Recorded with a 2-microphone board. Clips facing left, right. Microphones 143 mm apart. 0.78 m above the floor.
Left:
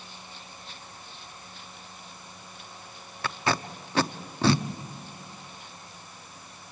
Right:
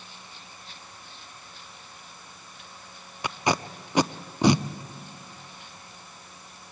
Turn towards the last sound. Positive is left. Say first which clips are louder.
# right 2 dB
turn(degrees=-15)  # may be behind; listen again after turning